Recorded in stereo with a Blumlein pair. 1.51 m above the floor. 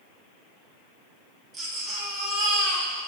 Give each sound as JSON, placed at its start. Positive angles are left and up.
{"t": 1.5, "sound": "a baby crying", "azimuth_deg": -15, "distance_m": 1.7}